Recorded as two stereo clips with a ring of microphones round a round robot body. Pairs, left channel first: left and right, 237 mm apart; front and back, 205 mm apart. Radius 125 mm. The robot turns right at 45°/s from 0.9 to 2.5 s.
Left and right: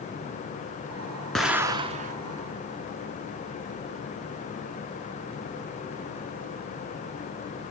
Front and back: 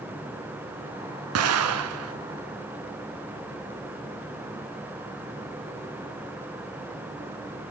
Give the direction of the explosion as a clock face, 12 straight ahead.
6 o'clock.